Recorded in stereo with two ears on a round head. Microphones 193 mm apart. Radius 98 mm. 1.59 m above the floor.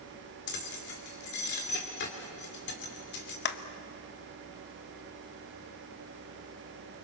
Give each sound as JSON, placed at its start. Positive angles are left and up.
{"t": 0.5, "sound": "keys jangling", "side_deg": 50, "distance_m": 3.0}
{"t": 3.5, "sound": "a clap", "side_deg": 50, "distance_m": 1.1}